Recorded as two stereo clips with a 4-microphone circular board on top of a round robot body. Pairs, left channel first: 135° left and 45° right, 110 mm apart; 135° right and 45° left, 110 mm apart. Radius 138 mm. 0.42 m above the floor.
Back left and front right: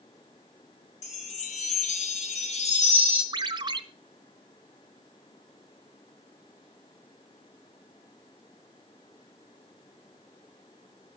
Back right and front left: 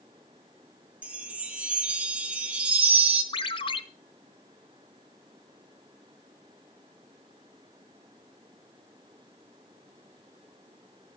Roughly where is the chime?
Behind left.